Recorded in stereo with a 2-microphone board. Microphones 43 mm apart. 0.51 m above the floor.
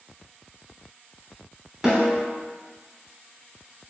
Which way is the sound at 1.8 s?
10° right (ahead or behind).